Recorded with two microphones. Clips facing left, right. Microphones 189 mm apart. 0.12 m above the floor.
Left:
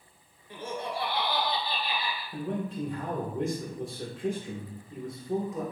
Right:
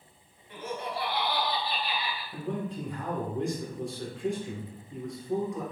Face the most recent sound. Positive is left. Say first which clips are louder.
# left 1 dB
turn(degrees=0)  # may be behind; listen again after turning